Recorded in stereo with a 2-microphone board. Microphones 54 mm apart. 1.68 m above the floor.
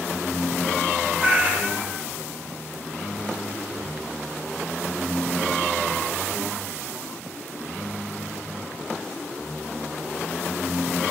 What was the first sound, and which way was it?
A cat meowing, 20° right (ahead or behind).